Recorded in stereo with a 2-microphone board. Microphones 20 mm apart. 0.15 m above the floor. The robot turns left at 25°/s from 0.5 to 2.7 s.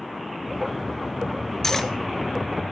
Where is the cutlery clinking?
15° left (ahead or behind), 1.1 m; by 1.9 s 10° left (ahead or behind), 1.1 m.